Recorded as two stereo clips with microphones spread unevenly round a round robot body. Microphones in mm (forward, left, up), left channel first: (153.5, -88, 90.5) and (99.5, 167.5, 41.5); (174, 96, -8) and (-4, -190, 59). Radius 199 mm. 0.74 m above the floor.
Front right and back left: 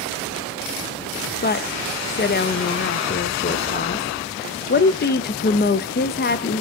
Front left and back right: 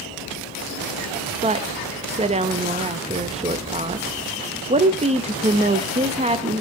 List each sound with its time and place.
1.4 s a woman speaking: 45° right, 0.8 m